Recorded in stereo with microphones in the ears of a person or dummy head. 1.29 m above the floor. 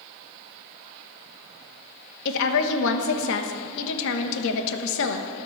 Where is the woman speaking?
75° left (ahead or behind), 1.3 m.